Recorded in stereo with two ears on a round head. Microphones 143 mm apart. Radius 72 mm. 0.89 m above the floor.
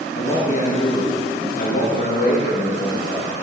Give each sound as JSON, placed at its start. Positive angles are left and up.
{"t": 0.1, "sound": "a man speaking", "side_deg": 50, "distance_m": 1.4}